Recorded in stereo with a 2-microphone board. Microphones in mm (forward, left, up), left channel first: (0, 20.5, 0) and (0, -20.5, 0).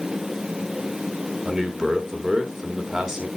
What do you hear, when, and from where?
1.4 s a man speaking: 15° right (ahead or behind), 1.1 m